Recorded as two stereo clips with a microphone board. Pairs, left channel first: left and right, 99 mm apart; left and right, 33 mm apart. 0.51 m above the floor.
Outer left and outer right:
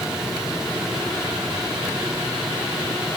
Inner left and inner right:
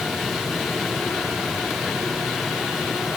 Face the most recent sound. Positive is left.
No sound to turn to.